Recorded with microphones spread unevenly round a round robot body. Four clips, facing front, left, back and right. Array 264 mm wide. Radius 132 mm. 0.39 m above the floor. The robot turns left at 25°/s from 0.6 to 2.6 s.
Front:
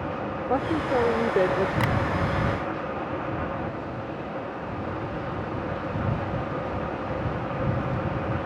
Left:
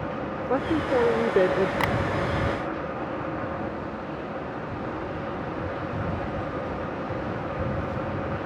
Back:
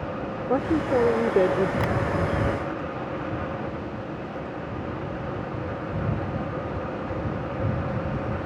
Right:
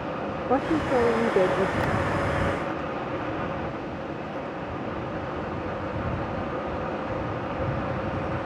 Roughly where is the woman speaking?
Behind.